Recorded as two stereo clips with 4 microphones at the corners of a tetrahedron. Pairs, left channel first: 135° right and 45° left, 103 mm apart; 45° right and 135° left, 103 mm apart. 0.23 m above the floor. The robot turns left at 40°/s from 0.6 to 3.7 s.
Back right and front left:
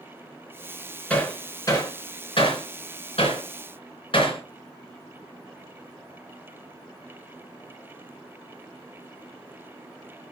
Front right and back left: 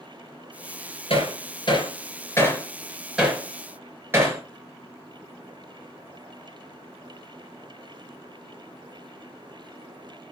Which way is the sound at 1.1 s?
55° right.